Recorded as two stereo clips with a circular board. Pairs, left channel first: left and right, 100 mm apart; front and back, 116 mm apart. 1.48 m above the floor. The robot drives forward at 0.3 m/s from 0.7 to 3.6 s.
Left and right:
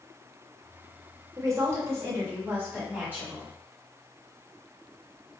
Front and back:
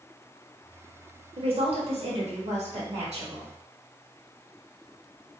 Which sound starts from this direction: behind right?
A woman speaking, at 1.4 s.